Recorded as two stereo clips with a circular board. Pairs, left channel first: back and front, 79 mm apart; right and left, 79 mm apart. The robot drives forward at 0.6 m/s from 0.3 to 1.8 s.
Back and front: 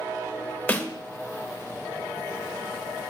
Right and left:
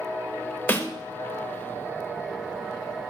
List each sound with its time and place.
0.7 s a snare drum: 130° right, 1.1 m; by 0.9 s 140° right, 1.1 m